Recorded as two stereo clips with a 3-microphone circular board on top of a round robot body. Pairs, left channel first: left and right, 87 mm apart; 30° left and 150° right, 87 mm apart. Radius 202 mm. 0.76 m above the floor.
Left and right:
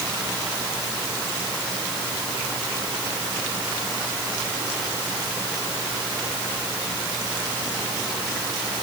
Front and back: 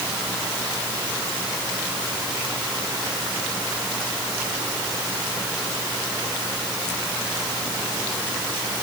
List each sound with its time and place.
Only background noise.